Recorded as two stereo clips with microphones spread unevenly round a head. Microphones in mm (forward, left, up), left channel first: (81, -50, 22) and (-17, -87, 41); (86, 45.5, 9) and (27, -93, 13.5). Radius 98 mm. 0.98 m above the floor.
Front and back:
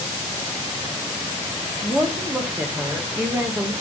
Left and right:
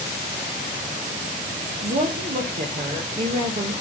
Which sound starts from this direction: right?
A woman speaking, at 1.8 s.